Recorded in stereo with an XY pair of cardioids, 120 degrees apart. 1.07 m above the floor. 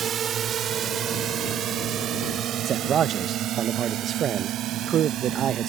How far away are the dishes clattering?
I don't hear dishes clattering.